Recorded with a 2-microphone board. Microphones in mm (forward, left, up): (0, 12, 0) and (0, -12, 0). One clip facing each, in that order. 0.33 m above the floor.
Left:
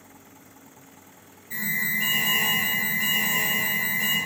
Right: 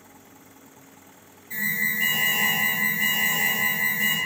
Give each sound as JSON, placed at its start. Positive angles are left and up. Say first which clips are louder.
{"t": 1.5, "sound": "an alarm", "louder": "right 1 dB", "side_deg": -5, "distance_m": 0.9}